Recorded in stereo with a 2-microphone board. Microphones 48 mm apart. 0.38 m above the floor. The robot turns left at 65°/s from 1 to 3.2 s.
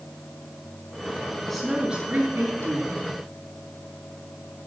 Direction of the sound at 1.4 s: 10° left.